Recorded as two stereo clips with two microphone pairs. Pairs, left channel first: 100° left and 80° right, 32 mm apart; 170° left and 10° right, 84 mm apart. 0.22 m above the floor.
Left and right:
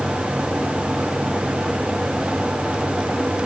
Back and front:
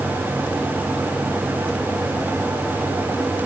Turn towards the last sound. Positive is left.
No sound to turn to.